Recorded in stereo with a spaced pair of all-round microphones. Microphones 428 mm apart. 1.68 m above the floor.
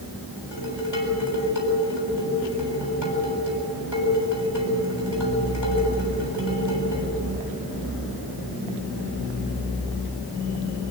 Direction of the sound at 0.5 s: 85° left.